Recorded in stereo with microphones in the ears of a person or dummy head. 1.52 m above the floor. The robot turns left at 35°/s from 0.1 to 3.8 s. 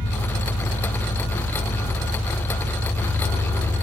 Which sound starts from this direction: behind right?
An engine running, at 0.0 s.